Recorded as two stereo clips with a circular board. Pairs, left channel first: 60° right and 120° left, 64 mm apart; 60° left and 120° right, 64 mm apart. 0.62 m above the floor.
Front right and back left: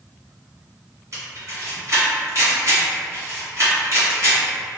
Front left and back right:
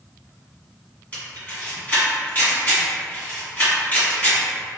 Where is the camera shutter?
120° left, 1.7 m.